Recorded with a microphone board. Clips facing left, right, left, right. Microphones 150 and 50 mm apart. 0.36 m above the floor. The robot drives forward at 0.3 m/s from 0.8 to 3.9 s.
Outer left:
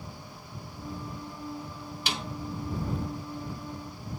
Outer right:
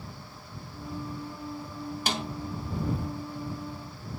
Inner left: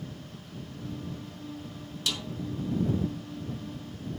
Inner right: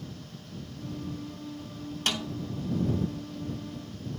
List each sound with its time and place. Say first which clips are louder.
2.1 s a snare drum: outer right 3 dB, inner right 3 dB; 45° right (ahead or behind), 1.9 m; by 2.3 s 40° right (ahead or behind), 1.9 m